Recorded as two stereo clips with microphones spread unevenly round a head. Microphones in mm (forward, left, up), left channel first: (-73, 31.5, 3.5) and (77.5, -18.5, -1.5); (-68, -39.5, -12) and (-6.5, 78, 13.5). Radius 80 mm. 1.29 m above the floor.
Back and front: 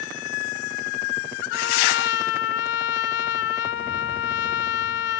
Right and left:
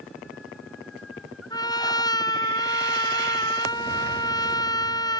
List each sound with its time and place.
1.5 s a trumpet: straight behind